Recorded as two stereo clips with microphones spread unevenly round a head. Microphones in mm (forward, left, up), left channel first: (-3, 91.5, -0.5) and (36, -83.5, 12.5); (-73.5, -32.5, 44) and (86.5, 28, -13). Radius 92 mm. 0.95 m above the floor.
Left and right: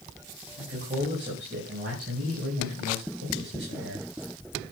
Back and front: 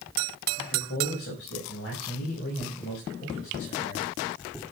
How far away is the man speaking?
About 5 m.